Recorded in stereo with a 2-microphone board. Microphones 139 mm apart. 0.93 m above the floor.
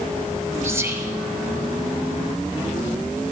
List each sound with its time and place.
0.6 s whispering: 15° right (ahead or behind), 0.7 m